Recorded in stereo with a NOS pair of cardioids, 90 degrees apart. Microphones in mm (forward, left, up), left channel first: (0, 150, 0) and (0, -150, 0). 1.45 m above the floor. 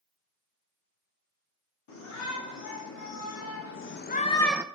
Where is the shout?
65° left, 3.5 m; by 4.7 s 15° right, 0.8 m.